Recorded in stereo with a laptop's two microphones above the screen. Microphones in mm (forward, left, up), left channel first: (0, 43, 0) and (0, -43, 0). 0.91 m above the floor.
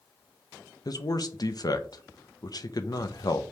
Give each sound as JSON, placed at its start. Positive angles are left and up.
{"t": 0.8, "sound": "a man speaking", "side_deg": 50, "distance_m": 0.5}